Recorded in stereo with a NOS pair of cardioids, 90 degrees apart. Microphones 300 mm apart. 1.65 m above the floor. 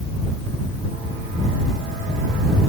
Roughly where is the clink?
No clink in this recording.